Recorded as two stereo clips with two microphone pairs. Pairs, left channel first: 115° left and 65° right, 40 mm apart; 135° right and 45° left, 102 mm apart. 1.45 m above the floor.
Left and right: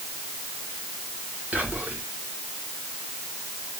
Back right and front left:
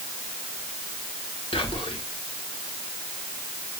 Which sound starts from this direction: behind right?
Whispering, at 1.5 s.